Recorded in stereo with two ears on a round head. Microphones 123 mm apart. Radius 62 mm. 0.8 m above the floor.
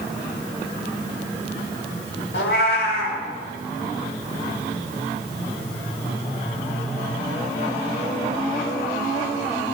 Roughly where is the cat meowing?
Left.